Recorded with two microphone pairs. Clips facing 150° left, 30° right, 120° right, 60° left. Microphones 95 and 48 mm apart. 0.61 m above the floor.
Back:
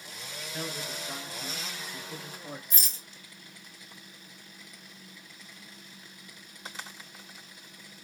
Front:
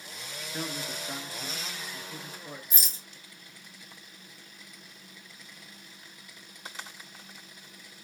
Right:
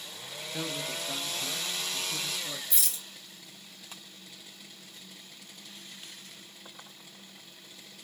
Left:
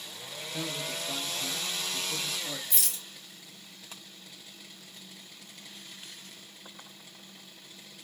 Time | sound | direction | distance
0.5 | a man speaking | 55° right | 0.8 m
2.7 | a rattle | 50° left | 1.9 m